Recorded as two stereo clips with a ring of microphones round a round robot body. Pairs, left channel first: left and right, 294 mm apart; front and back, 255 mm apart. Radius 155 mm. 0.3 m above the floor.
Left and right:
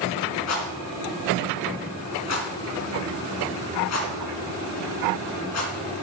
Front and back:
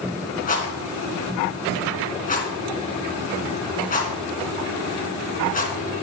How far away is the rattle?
About 2.5 m.